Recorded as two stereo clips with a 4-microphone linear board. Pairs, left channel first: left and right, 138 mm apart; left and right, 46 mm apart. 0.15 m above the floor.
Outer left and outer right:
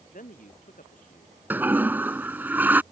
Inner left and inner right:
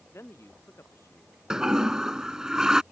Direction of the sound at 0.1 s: 75° left (ahead or behind).